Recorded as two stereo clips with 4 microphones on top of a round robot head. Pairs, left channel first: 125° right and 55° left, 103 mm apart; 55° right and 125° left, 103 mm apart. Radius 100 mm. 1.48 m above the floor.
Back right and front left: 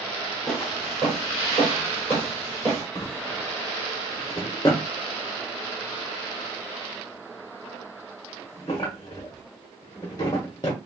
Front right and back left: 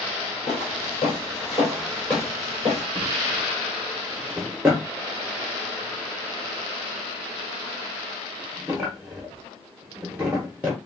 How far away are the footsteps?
About 1.9 m.